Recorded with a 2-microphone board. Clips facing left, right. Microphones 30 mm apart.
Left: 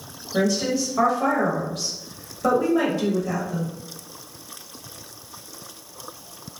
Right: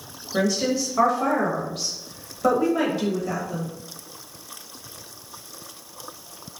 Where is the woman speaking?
10° right (ahead or behind), 1.0 m.